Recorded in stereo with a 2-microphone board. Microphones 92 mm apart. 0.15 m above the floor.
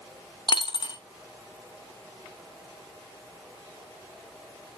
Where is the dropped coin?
55° left (ahead or behind), 0.6 m.